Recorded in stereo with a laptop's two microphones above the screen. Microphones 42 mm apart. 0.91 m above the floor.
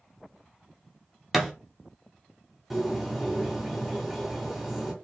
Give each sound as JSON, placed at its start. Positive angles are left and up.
{"t": 1.3, "sound": "a thud", "side_deg": -5, "distance_m": 0.5}
{"t": 2.7, "sound": "a bird", "side_deg": -5, "distance_m": 1.8}